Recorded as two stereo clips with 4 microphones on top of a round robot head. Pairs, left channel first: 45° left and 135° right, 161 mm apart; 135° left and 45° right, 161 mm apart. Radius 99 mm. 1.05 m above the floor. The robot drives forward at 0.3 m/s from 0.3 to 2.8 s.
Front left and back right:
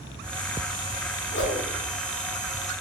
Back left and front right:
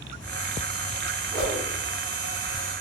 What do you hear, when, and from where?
1.3 s a whoosh: 45° left, 0.8 m